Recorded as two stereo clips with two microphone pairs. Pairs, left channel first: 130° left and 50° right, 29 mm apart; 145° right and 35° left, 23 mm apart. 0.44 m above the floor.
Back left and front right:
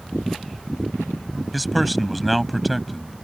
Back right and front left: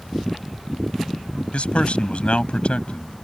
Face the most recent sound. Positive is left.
turn(degrees=-140)